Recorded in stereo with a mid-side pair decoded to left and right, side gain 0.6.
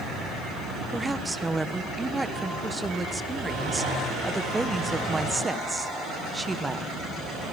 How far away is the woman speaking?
About 1.2 m.